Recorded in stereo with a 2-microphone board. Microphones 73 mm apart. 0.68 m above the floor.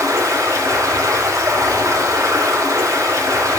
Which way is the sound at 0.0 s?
55° right (ahead or behind).